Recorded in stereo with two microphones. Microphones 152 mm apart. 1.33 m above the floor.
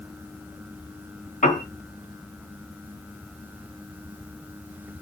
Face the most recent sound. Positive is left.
turn(degrees=60)  # may be behind; listen again after turning